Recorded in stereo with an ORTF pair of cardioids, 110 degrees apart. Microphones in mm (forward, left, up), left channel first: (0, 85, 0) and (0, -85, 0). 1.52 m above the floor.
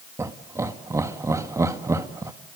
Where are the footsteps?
No footsteps in this recording.